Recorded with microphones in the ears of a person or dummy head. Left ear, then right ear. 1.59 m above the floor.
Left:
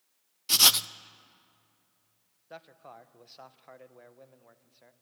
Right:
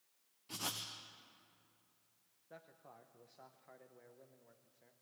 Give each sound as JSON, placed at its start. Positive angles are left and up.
{"t": 0.5, "sound": "writing", "side_deg": 65, "distance_m": 0.6}
{"t": 2.5, "sound": "a man speaking", "side_deg": 35, "distance_m": 1.0}